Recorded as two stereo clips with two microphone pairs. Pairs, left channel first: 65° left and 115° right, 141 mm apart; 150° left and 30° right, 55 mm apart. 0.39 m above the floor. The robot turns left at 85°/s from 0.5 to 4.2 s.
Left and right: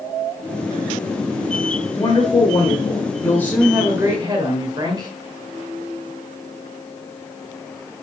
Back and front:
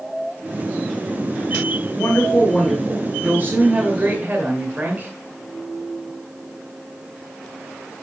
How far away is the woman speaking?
About 1.7 m.